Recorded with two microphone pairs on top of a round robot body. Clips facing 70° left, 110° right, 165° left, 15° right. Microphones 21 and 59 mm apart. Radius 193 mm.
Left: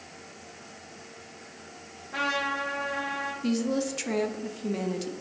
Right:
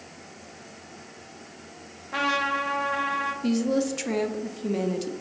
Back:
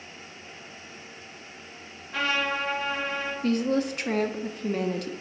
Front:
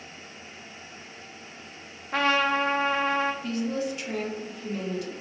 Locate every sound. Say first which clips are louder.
2.1 s a trumpet: right 3 dB, front 4 dB; 50° right, 0.6 m
3.4 s a woman speaking: right 2 dB, back 4 dB; 175° left, 0.6 m